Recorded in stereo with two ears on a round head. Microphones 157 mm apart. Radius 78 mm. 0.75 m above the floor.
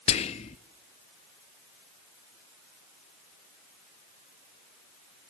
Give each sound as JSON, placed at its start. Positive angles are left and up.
{"t": 0.1, "sound": "whispering", "side_deg": 35, "distance_m": 0.5}